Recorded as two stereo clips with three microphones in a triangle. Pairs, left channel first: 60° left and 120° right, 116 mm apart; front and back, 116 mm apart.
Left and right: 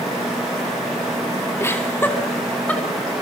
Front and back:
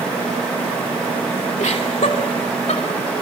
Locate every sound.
1.6 s laughter: 10° right, 2 m; by 2.8 s 20° right, 4 m